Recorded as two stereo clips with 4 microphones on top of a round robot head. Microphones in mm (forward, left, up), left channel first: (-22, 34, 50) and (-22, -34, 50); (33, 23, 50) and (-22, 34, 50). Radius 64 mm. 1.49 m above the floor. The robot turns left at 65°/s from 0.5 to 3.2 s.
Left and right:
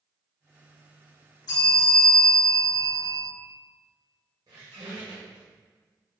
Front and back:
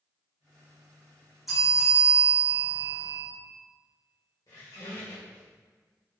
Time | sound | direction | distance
1.5 | a bell | 85° left | 1.5 m
4.5 | a squeak | 45° right | 1.4 m